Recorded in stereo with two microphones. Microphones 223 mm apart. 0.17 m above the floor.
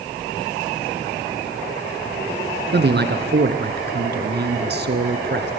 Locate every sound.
2.7 s a man speaking: 50° right (ahead or behind), 2 m